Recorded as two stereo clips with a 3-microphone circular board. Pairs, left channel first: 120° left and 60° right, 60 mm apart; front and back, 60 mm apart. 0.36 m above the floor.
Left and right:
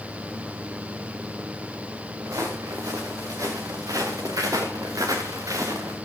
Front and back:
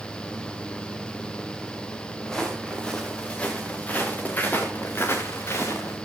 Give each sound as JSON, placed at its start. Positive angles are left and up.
{"t": 2.2, "sound": "footsteps", "azimuth_deg": -80, "distance_m": 4.0}